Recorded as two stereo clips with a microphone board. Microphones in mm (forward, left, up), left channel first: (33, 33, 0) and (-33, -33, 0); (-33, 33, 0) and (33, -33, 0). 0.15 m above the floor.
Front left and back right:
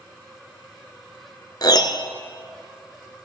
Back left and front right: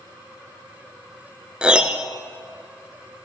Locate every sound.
1.6 s a piano: 30° left, 1.0 m